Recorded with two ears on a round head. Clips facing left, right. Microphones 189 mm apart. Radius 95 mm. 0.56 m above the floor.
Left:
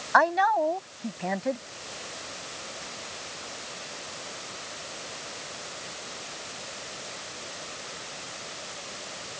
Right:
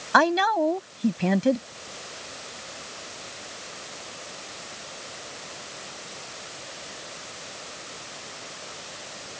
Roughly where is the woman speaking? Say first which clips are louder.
Right 2 dB; right.